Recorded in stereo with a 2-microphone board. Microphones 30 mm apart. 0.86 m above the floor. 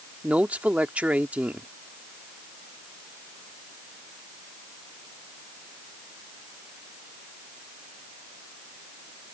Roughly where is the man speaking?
Right.